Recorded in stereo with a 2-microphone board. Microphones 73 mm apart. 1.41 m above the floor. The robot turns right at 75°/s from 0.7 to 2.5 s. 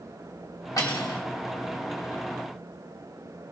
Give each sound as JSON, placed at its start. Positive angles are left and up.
{"t": 0.8, "sound": "cutlery clinking", "azimuth_deg": 70, "distance_m": 1.9}